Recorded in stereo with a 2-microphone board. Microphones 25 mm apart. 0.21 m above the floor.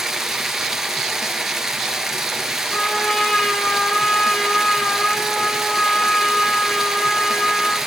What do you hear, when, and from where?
0.0 s running water: 15° right (ahead or behind), 2.5 m
2.7 s a trumpet: 85° left, 8 m